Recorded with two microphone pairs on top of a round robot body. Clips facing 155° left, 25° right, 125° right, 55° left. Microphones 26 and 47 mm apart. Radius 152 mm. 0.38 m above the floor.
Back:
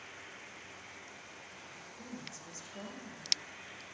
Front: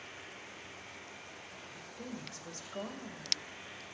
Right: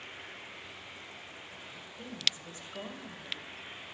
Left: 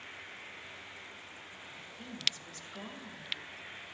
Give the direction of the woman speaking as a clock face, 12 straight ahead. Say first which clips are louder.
Front 3 dB, right 1 dB; 2 o'clock.